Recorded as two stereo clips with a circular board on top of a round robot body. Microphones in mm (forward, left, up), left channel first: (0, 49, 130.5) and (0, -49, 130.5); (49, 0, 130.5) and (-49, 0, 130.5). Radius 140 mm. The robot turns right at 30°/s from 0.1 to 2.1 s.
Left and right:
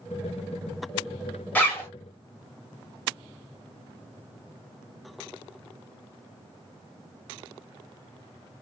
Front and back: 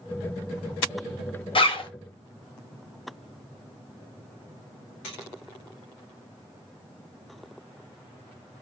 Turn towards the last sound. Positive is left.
turn(degrees=35)